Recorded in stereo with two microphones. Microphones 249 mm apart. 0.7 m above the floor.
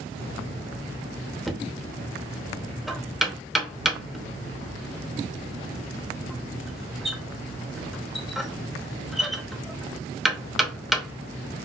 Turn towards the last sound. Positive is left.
turn(degrees=0)  # may be behind; listen again after turning